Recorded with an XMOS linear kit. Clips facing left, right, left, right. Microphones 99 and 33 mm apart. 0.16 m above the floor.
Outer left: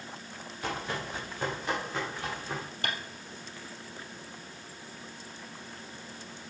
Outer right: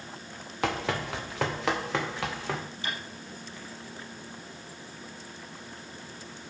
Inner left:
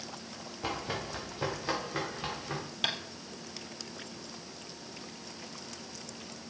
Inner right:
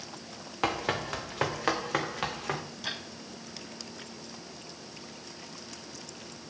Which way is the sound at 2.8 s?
60° left (ahead or behind).